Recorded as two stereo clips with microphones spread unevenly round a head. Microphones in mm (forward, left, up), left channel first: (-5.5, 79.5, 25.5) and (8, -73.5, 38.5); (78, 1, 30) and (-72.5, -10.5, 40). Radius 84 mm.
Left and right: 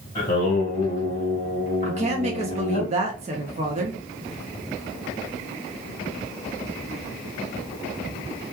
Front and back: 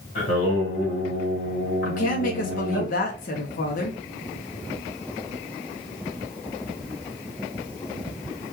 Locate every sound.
0.1 s singing: 50° left, 1.9 m
1.8 s a woman speaking: 35° right, 0.6 m